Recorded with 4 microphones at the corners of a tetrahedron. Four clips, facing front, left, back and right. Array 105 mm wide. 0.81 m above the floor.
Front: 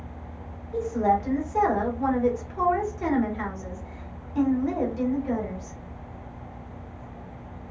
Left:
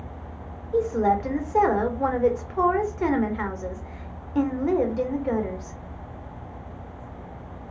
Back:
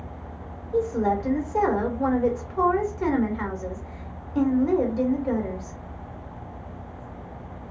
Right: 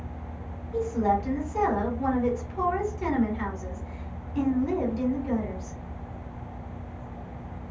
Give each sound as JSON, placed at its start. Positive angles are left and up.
{"t": 0.7, "sound": "a woman speaking", "azimuth_deg": 110, "distance_m": 1.3}